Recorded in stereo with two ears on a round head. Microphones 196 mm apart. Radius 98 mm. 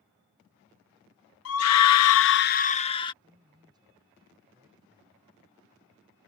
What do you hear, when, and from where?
1.4 s a scream: 65° left (ahead or behind); by 3.1 s 20° left (ahead or behind)
3.2 s a man speaking: 20° right (ahead or behind)